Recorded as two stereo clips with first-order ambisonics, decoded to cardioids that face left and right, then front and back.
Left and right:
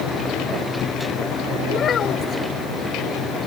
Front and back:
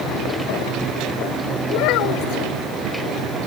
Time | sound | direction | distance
1.7 | a child speaking | 25° left | ?